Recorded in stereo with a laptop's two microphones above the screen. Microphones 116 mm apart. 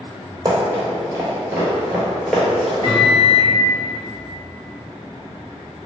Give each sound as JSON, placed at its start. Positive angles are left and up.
{"t": 0.5, "sound": "running footsteps", "side_deg": -35, "distance_m": 1.4}
{"t": 2.8, "sound": "a microwave", "side_deg": 30, "distance_m": 1.1}